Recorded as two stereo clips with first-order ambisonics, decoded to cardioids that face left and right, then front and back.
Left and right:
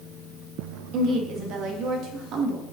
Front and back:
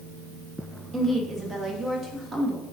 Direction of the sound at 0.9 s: 110° right.